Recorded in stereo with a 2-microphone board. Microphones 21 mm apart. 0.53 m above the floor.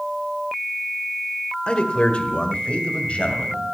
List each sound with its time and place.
1.7 s a man speaking: 45° left (ahead or behind), 1.6 m; by 3.6 s 70° left (ahead or behind), 2.5 m